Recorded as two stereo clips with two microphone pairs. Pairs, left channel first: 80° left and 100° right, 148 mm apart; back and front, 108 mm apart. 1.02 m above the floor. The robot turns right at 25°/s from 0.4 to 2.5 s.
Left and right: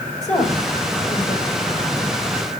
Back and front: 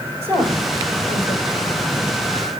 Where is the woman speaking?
120° left, 5 m; by 1.7 s 150° left, 5 m.